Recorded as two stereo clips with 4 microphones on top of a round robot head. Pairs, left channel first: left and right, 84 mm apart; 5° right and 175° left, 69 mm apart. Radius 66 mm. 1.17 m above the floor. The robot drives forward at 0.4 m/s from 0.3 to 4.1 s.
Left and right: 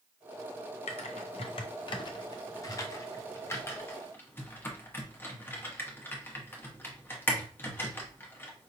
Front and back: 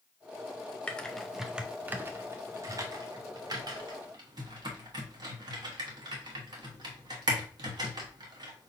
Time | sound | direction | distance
0.9 | typing on a keyboard | 70° left | 0.6 m